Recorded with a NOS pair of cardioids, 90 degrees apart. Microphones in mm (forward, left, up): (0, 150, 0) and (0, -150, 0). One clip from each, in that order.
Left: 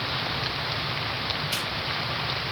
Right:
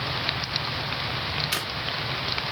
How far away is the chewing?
About 1.3 m.